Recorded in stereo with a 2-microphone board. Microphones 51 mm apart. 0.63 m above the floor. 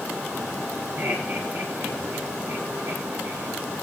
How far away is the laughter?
About 9.5 m.